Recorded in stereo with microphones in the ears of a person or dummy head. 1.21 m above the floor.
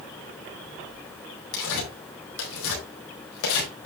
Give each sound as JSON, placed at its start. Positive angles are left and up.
{"t": 1.5, "sound": "tearing paper", "side_deg": 75, "distance_m": 4.0}